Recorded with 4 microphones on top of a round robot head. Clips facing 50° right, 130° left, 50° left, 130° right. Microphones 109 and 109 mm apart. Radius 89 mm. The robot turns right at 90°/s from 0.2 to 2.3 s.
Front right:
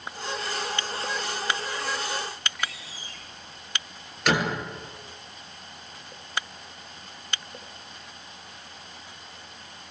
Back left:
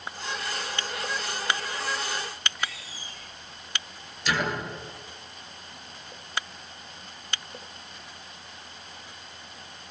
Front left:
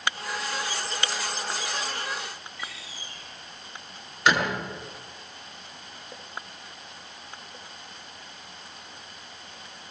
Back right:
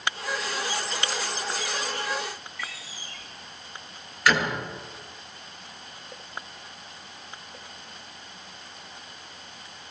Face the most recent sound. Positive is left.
turn(degrees=-15)